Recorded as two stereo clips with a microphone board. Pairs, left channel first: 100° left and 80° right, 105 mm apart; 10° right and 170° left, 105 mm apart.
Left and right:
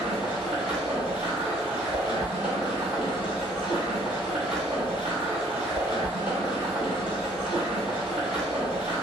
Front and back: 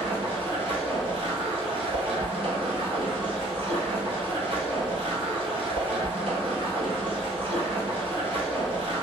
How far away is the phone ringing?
I don't hear a phone ringing.